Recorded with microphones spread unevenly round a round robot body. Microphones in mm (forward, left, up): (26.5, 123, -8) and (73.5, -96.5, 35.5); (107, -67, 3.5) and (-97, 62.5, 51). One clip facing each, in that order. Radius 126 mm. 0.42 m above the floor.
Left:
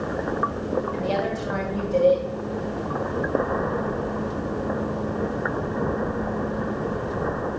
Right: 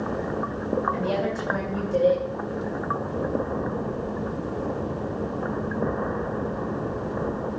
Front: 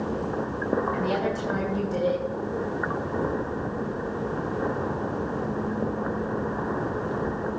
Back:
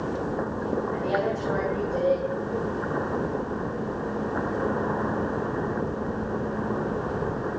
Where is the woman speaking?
Straight ahead, 3 m.